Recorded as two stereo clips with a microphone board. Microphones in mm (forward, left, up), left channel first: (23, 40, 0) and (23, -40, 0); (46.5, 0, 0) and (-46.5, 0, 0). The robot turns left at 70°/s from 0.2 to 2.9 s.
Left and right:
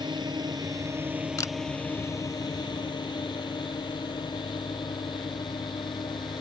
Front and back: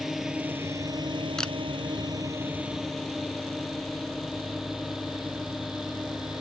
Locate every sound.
0.0 s a drone: 95° right; by 6.4 s 90° left
1.4 s a camera shutter: 80° left; by 1.5 s 70° left